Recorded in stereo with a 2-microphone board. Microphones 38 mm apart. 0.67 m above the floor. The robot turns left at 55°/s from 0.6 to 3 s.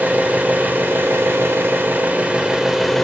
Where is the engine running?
50° right, 1.1 m; by 3.1 s 175° left, 1.1 m.